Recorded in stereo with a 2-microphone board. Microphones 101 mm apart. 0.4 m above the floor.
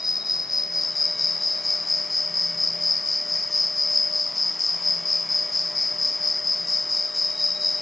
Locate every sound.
0.0 s an insect: 5° right (ahead or behind), 1.2 m